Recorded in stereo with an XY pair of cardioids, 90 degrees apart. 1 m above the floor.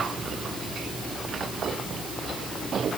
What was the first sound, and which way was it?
Only background noise.